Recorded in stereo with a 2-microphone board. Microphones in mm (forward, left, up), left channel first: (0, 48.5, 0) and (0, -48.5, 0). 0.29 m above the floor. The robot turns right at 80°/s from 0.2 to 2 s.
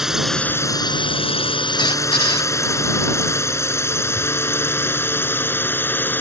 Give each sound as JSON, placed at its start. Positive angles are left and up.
{"t": 0.0, "sound": "a drone", "side_deg": -5}
{"t": 1.8, "sound": "a squeak", "side_deg": 55}